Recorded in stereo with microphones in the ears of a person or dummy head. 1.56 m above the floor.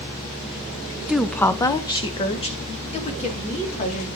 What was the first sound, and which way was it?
A woman speaking, 5° right (ahead or behind).